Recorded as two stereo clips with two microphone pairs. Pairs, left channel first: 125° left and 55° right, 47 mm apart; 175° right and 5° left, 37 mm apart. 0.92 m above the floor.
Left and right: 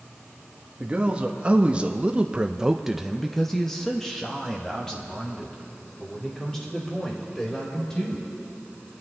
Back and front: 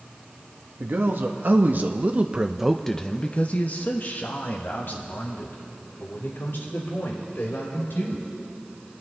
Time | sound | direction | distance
0.8 | a man speaking | 10° left | 1.3 m